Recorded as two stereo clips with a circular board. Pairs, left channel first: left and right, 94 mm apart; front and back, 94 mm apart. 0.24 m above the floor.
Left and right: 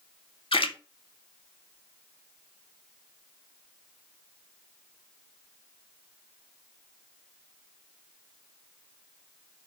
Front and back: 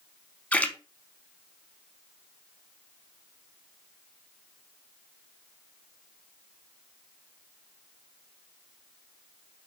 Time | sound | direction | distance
0.5 | a splash | 75° left | 0.5 m